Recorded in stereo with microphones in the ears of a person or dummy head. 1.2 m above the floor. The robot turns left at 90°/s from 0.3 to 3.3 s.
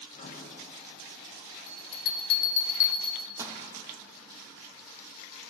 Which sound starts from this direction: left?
A bell, at 1.7 s.